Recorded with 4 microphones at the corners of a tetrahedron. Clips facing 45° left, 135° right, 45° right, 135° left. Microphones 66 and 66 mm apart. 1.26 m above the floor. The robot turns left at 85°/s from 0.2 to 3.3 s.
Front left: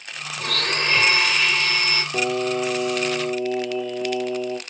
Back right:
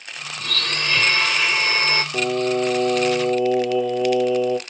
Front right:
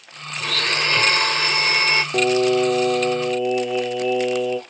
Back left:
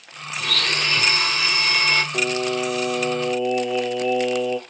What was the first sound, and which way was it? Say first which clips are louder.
A blender: front left 2 dB, front right 2 dB; 35° left.